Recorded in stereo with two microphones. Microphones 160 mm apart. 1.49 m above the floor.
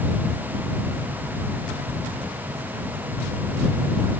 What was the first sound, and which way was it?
Only background noise.